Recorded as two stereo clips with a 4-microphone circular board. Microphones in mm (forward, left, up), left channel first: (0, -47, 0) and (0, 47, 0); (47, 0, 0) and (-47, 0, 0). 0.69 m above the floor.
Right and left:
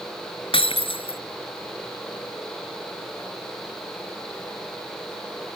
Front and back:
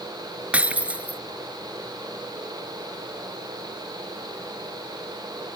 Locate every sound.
0.5 s breaking glass: 105° right